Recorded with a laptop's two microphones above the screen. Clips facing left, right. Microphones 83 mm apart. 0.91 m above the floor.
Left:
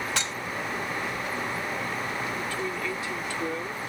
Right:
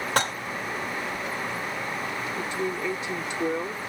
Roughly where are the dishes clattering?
Right.